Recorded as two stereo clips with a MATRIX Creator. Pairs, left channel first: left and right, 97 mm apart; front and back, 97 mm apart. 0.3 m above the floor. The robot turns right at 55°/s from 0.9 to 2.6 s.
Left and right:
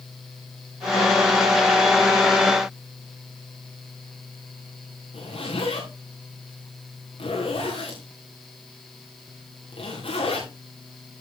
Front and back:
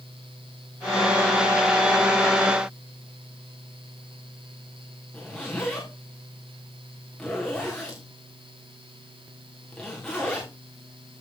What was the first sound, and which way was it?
A zipper, 85° left.